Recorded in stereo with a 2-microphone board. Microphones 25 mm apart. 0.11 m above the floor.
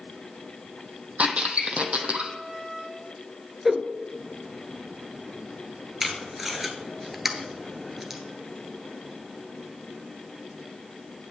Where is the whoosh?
10° right (ahead or behind), 0.7 m.